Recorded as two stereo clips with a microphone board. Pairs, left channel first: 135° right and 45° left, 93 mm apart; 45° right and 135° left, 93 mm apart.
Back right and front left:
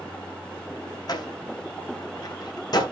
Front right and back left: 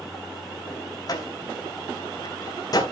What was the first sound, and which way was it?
A door slam, 95° right.